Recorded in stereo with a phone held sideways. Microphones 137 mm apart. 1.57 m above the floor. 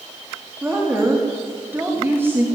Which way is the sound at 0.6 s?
15° right (ahead or behind).